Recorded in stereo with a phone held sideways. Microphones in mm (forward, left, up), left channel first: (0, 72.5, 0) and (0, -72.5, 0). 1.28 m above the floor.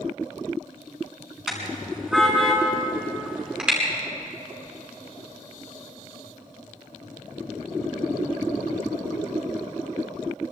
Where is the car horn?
5° right (ahead or behind), 6 m.